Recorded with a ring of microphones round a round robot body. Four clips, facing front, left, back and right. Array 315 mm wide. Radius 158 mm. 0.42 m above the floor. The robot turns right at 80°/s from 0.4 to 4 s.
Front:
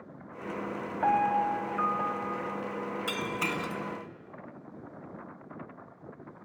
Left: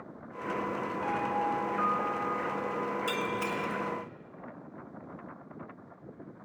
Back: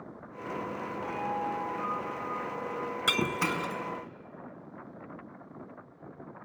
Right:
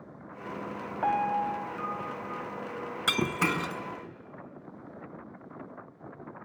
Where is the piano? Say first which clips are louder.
Right 5 dB, front 9 dB; 40° right, 1.6 m; by 2.9 s 115° left, 1.6 m.